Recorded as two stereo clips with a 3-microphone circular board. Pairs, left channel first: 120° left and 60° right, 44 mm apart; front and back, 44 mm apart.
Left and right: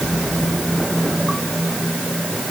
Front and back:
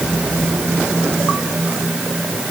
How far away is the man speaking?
I don't hear a man speaking.